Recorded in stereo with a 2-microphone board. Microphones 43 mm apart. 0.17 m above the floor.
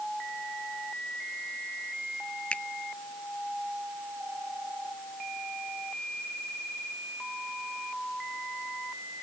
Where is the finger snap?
25° left (ahead or behind).